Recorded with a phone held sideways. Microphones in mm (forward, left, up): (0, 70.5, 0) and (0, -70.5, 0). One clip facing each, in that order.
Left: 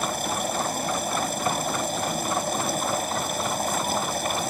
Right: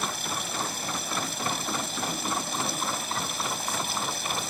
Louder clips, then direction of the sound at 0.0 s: Left 7 dB; 50° left (ahead or behind).